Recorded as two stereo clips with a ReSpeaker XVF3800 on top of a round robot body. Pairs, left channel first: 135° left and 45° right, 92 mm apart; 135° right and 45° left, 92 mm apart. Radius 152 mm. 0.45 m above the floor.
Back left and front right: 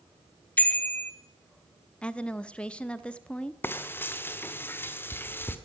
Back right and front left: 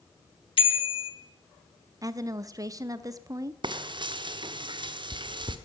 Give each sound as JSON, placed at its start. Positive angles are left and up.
{"t": 0.6, "sound": "a bicycle bell", "azimuth_deg": -150, "distance_m": 2.0}
{"t": 2.0, "sound": "a woman speaking", "azimuth_deg": 60, "distance_m": 1.0}
{"t": 3.6, "sound": "frying", "azimuth_deg": 70, "distance_m": 1.4}